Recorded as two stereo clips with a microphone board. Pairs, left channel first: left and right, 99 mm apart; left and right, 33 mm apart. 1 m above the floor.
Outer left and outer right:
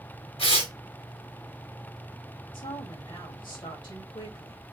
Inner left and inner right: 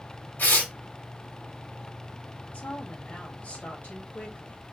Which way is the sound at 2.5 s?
50° left (ahead or behind).